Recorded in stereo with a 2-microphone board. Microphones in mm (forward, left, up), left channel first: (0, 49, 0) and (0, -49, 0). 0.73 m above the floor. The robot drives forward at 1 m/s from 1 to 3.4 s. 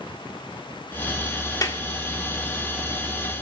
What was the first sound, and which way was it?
A clap, 40° left (ahead or behind).